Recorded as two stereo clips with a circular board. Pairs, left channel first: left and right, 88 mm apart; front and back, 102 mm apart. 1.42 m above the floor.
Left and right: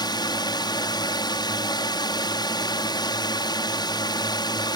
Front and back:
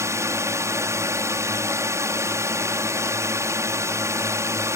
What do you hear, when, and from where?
0.0 s a drone: 120° left